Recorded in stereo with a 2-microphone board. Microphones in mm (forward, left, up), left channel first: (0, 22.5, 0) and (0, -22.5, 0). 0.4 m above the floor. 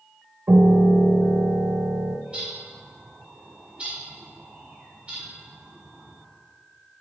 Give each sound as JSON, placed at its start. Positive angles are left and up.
{"t": 0.5, "sound": "a piano", "side_deg": -60, "distance_m": 0.6}
{"t": 2.3, "sound": "a bird", "side_deg": -30, "distance_m": 1.6}